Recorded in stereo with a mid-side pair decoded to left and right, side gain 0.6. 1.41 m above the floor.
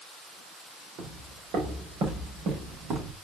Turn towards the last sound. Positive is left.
turn(degrees=-55)